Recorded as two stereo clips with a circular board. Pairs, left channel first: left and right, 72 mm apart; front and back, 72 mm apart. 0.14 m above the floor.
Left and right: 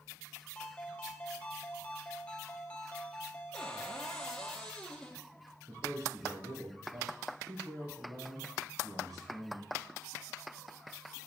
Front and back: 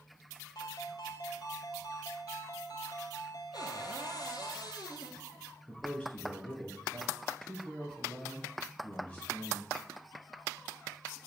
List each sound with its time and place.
0.6 s a ringtone: 20° left, 1.5 m
3.5 s a cupboard door: 10° left, 1.7 m
5.7 s a man speaking: 70° right, 3.5 m